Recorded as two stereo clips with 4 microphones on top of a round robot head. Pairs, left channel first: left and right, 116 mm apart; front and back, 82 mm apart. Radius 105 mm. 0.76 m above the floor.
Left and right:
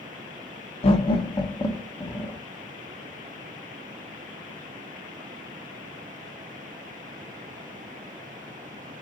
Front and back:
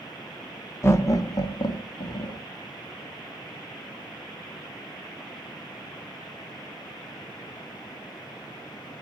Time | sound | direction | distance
0.8 | laughter | 55° left | 1.0 m